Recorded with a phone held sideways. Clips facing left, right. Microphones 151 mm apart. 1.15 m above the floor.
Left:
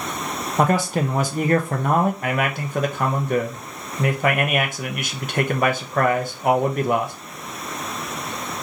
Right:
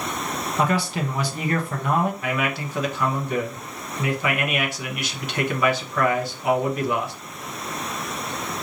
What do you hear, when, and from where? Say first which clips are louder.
0.6 s a man speaking: left 4 dB; 50° left (ahead or behind), 0.6 m
2.2 s a man speaking: left 2 dB; 50° left (ahead or behind), 0.7 m